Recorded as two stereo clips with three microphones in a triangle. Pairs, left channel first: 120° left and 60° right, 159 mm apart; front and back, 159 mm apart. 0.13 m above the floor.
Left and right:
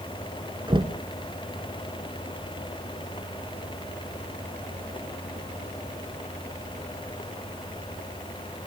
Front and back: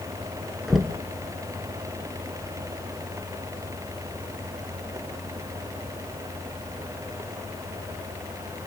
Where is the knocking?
90° right, 1.6 m.